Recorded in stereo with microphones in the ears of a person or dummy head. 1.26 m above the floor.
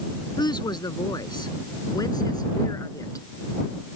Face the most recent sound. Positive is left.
turn(degrees=15)  # may be behind; listen again after turning